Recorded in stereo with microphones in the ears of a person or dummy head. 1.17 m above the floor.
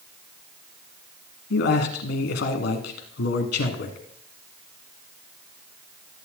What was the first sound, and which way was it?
A man speaking, 65° left (ahead or behind).